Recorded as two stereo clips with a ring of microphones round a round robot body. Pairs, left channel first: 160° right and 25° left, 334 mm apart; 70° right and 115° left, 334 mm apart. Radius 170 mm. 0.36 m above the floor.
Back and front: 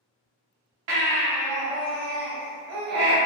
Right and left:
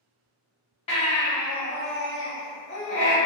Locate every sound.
0.9 s a baby crying: 5° left, 0.8 m